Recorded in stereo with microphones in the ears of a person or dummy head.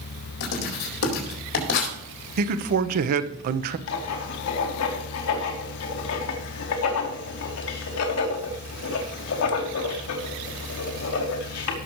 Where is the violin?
I don't hear a violin.